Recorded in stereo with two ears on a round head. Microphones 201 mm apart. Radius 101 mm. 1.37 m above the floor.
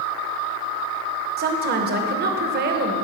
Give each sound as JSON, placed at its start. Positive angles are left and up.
{"t": 1.4, "sound": "a woman speaking", "side_deg": -45, "distance_m": 0.9}